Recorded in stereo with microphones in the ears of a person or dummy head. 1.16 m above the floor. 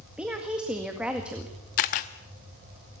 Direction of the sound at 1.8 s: 45° left (ahead or behind).